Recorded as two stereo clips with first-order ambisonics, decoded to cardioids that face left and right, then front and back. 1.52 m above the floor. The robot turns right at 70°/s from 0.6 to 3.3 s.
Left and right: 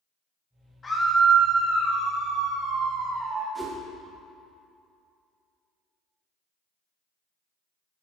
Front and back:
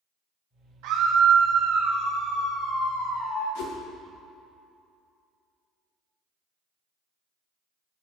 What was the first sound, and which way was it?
A scream, 165° left.